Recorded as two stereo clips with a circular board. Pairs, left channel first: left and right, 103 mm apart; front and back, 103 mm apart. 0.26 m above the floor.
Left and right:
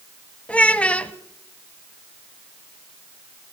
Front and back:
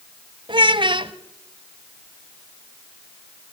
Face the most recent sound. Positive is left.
turn(degrees=165)